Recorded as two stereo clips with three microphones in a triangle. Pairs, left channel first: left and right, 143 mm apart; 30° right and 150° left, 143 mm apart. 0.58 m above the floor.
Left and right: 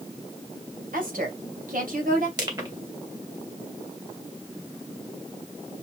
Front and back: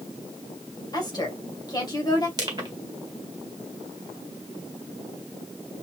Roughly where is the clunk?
No clunk in this recording.